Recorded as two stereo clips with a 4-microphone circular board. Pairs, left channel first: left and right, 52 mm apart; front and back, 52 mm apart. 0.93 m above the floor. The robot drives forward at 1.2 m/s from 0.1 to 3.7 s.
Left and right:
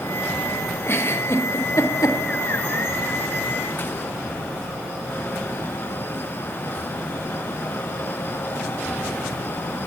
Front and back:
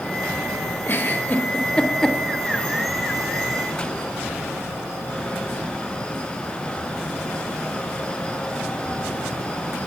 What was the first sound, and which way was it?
A giggle, 50° left.